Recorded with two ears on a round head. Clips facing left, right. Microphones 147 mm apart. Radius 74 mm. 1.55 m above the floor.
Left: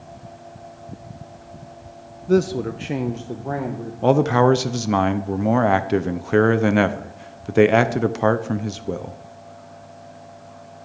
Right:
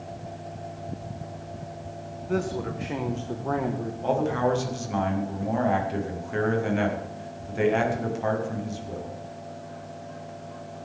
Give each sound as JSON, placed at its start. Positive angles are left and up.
{"t": 2.3, "sound": "a man speaking", "side_deg": 45, "distance_m": 0.7}
{"t": 4.0, "sound": "a man speaking", "side_deg": 70, "distance_m": 0.7}